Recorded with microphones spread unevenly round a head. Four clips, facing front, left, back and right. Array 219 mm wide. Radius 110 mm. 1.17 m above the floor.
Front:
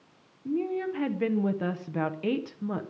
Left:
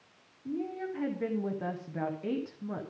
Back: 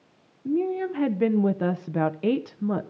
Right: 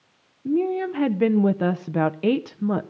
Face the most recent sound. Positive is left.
turn(degrees=-115)